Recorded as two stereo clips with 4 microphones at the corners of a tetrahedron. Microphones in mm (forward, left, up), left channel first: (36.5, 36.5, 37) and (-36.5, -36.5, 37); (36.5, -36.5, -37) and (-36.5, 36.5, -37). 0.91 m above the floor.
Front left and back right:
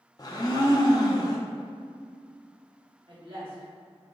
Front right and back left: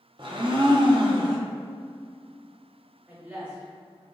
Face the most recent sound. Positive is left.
turn(degrees=-150)